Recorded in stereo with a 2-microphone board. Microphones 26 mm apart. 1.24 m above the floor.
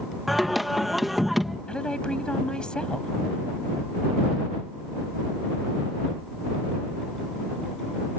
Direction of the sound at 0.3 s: 5° right (ahead or behind).